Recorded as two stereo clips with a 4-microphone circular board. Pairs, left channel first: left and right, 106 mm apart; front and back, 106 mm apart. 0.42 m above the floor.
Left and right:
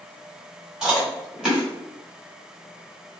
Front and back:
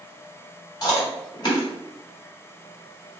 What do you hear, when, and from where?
0.8 s chewing: 10° right, 1.5 m